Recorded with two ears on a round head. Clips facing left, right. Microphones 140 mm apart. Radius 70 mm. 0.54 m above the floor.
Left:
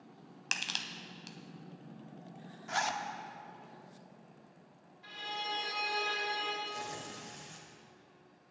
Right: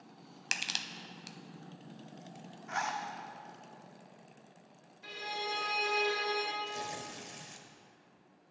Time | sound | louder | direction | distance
0.5 | crushing | even | 10° right (ahead or behind) | 0.5 m
2.7 | a zipper | left 1 dB | 40° left (ahead or behind) | 0.8 m
5.0 | a violin | right 2 dB | 65° right (ahead or behind) | 2.5 m
6.6 | tearing paper | right 2 dB | 20° right (ahead or behind) | 1.1 m